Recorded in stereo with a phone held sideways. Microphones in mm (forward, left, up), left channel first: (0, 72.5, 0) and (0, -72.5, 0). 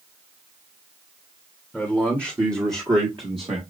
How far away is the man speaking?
About 1.2 m.